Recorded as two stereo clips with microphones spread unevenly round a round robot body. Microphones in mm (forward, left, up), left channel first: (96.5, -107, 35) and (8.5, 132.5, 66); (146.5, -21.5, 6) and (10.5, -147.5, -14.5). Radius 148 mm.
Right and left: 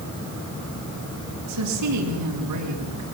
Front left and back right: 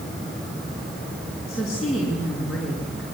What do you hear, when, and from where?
1.5 s a woman speaking: 135° left, 6 m